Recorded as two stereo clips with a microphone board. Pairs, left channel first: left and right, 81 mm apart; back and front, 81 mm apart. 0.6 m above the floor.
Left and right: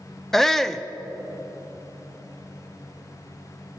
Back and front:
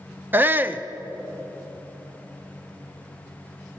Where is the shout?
10° left, 0.6 m.